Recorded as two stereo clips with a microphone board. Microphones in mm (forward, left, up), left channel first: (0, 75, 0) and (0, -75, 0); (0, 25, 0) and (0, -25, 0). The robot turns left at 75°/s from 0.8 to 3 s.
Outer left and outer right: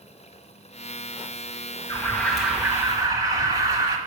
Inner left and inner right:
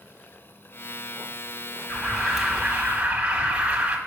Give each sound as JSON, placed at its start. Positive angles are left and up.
{"t": 1.9, "sound": "an alarm", "azimuth_deg": 35, "distance_m": 1.3}